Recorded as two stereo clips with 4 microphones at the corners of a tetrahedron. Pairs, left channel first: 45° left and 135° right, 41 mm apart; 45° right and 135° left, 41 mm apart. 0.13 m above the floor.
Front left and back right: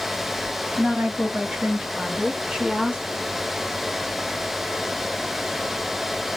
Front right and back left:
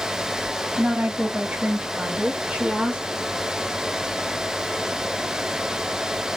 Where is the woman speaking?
170° left, 2.5 m; by 3.0 s 150° left, 1.5 m.